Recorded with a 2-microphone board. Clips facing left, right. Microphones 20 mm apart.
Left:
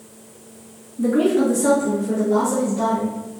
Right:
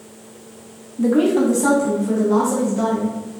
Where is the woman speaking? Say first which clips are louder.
Right 1 dB; 30° right (ahead or behind), 1.4 m; by 3.1 s 55° right (ahead or behind), 2.5 m.